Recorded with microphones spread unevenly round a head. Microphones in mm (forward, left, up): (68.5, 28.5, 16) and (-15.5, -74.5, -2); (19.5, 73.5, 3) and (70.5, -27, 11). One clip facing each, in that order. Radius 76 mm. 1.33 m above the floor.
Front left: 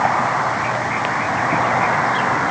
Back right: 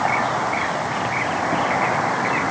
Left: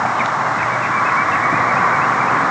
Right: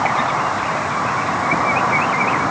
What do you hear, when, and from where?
Only background noise.